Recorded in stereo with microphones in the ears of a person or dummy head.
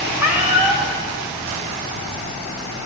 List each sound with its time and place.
0.2 s a cat meowing: 10° right (ahead or behind), 1.0 m